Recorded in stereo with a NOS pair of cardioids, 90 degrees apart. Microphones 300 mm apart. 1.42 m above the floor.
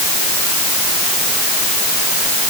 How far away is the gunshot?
No gunshot in this recording.